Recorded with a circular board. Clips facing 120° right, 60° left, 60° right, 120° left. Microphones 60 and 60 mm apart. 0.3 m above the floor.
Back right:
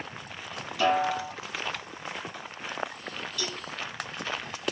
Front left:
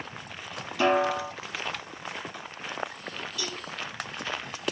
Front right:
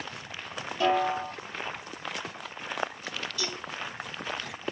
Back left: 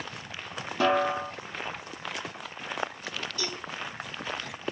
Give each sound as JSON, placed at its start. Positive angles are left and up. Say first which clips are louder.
{"t": 0.8, "sound": "a snare drum", "louder": "front left 1 dB, back left 1 dB", "azimuth_deg": 130, "distance_m": 0.7}
{"t": 3.4, "sound": "a cowbell", "louder": "back right 1 dB, even", "azimuth_deg": 130, "distance_m": 1.4}